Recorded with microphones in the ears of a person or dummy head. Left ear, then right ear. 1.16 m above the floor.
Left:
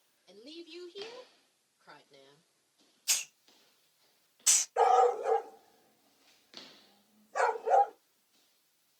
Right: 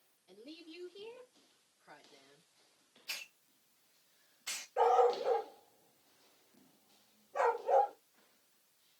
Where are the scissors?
I don't hear scissors.